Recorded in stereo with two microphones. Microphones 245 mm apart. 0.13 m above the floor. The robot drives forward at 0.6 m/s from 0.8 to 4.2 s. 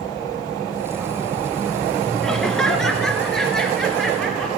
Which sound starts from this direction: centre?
Laughter, at 2.2 s.